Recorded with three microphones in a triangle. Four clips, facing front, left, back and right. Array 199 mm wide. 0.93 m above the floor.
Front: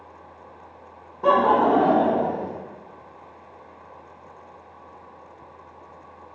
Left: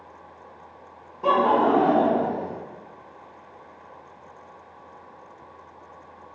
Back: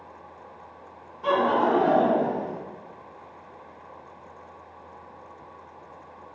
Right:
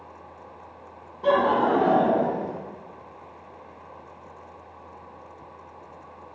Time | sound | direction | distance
1.2 | laughter | 15° left | 1.0 m